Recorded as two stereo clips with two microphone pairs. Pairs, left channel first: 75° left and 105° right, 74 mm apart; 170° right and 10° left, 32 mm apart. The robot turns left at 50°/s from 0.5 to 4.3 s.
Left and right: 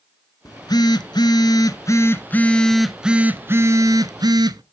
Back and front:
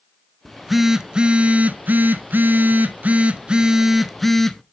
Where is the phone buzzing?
105° left, 1.0 m; by 4.6 s 85° right, 1.0 m.